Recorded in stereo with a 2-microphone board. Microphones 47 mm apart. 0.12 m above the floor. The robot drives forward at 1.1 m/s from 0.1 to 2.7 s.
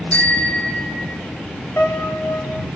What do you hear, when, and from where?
0.1 s a bicycle bell: 30° left (ahead or behind), 4 m; by 1.2 s 25° left (ahead or behind), 5 m
1.8 s a piano: 60° left (ahead or behind), 6.5 m; by 2.7 s 55° left (ahead or behind), 7 m